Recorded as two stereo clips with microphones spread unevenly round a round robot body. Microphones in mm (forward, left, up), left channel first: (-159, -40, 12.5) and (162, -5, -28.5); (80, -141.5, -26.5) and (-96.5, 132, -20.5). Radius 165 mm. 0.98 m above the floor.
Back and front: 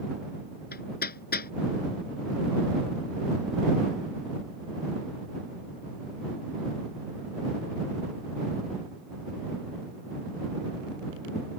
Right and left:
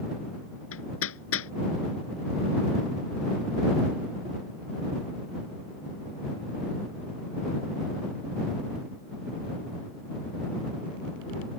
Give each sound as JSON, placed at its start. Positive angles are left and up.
{"t": 0.7, "sound": "hammering", "azimuth_deg": -110}